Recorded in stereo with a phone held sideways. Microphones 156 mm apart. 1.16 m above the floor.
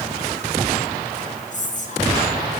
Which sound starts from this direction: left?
Whispering, at 1.5 s.